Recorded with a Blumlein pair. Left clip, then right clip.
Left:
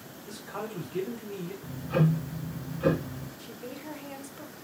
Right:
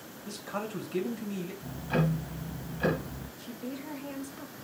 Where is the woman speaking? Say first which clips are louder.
Right 2 dB; 5° left, 0.9 m.